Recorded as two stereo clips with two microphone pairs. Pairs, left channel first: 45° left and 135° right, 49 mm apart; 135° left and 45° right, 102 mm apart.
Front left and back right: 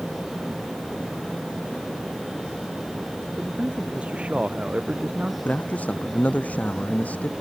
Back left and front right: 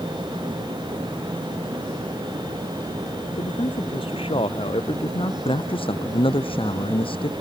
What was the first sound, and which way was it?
A man speaking, 160° left.